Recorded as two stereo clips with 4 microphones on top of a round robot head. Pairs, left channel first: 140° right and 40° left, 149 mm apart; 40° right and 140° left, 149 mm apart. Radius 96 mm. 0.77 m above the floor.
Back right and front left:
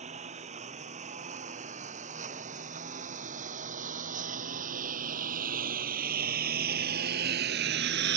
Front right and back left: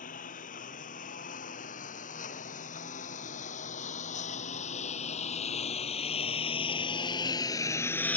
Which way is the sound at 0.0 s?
5° right.